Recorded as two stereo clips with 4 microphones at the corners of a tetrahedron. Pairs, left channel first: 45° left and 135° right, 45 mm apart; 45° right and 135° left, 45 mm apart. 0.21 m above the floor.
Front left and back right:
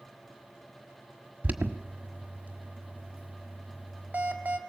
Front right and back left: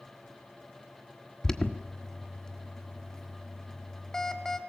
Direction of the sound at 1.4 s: 115° right.